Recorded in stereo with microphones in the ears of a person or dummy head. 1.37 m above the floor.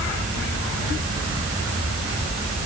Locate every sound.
Only background noise.